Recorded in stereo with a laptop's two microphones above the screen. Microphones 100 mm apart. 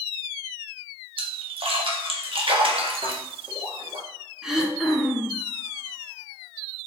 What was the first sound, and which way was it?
A splash, 60° right (ahead or behind).